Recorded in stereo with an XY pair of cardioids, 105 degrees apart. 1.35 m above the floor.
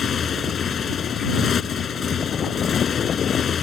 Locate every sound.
0.0 s a motorcycle: 45° left